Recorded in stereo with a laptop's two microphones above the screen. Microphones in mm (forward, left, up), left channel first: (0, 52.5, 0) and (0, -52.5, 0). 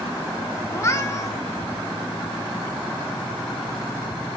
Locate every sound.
0.7 s a cat meowing: 30° left (ahead or behind), 0.9 m